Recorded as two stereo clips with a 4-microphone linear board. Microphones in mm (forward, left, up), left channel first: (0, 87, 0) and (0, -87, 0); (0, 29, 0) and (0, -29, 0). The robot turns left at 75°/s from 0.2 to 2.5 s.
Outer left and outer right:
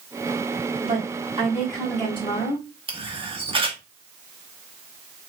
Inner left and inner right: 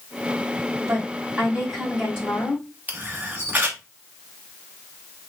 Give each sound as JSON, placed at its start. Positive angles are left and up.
{"t": 0.8, "sound": "a woman speaking", "azimuth_deg": -85, "distance_m": 1.4}
{"t": 2.9, "sound": "a camera shutter", "side_deg": -30, "distance_m": 0.9}